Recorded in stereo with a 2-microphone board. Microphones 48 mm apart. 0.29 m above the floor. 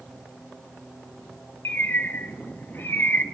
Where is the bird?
45° left (ahead or behind), 0.6 m.